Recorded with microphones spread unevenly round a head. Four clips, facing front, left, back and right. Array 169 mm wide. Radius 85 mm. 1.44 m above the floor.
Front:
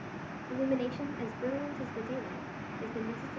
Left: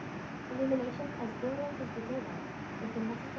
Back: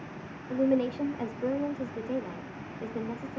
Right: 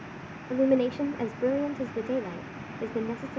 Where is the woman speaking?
90° right, 0.5 m.